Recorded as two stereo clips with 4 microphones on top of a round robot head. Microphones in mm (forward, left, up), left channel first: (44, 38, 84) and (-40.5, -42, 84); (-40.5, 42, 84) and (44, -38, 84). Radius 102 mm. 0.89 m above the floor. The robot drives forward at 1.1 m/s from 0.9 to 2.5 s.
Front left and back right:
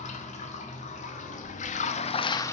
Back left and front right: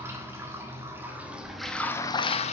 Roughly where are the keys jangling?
No keys jangling in this recording.